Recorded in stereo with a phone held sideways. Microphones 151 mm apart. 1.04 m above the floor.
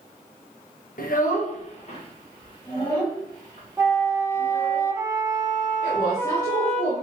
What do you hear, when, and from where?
1.0 s a child speaking: 70° left (ahead or behind), 0.6 m; by 4.8 s 15° left (ahead or behind), 2.5 m
3.8 s a flute: 15° right (ahead or behind), 1.1 m
5.8 s a woman speaking: 30° left (ahead or behind), 2 m